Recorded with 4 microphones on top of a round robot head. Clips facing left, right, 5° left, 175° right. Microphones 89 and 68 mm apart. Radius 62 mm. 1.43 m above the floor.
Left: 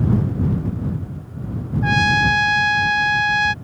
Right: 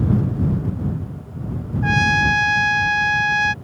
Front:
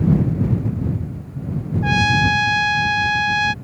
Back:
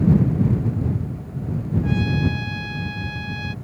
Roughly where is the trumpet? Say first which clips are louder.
Left 1 dB, front 8 dB; ahead.